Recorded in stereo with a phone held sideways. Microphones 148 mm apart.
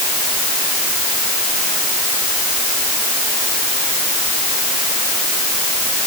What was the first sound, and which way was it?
Only background noise.